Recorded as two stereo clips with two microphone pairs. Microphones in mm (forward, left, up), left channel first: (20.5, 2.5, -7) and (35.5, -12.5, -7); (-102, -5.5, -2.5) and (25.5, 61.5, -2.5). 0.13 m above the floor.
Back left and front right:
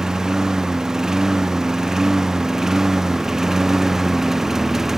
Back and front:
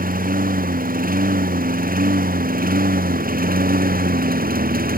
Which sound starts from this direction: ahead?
A lawn mower, at 0.0 s.